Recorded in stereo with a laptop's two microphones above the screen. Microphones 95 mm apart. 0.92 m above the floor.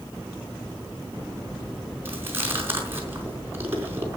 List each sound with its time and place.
2.0 s chewing: 25° right (ahead or behind), 4.5 m